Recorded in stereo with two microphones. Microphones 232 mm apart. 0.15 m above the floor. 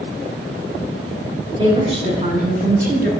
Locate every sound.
1.6 s a woman speaking: 20° right (ahead or behind), 1.2 m; by 3.1 s 45° right (ahead or behind), 1.4 m